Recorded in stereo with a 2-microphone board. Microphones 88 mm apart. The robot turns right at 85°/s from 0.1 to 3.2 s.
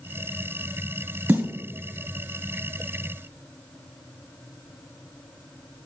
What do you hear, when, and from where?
1.3 s a snare drum: 20° right (ahead or behind), 1.8 m